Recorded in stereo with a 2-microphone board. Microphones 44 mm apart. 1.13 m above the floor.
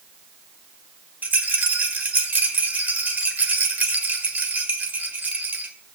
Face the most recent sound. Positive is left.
turn(degrees=-40)  # may be behind; listen again after turning